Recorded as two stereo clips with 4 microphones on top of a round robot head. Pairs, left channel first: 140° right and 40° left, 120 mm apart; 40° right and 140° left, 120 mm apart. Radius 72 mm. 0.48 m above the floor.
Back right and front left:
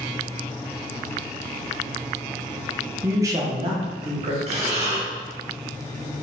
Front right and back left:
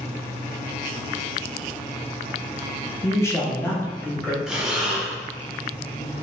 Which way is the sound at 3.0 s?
15° right.